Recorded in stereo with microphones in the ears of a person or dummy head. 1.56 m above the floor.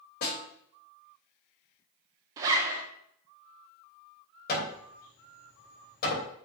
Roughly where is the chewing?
No chewing in this recording.